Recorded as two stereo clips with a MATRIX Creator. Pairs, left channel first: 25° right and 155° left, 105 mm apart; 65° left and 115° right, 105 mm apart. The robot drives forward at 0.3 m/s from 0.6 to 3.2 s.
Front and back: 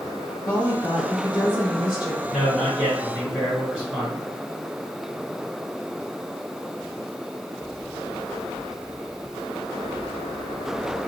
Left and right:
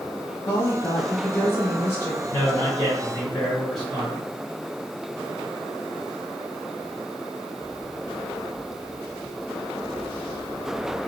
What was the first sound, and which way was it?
A woman speaking, 40° left.